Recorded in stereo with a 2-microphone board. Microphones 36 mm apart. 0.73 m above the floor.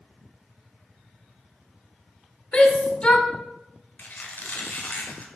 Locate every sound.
2.5 s a shout: 30° left (ahead or behind), 2.0 m
4.0 s a squeak: 60° left (ahead or behind), 1.8 m